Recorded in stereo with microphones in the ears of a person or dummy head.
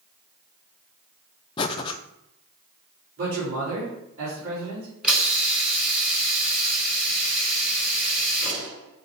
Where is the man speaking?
45° right (ahead or behind), 3.5 m.